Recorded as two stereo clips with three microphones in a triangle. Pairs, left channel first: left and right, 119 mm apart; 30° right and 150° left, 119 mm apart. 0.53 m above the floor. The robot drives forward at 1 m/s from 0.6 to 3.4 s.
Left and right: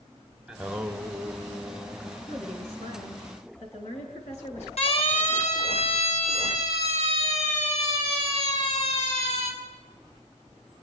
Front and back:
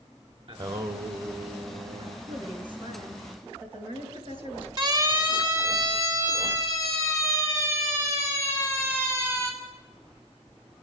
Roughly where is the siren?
Left.